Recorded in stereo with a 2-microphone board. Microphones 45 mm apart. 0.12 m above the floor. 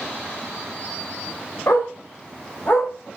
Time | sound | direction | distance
1.7 | a dog barking | 65° left (ahead or behind) | 5 m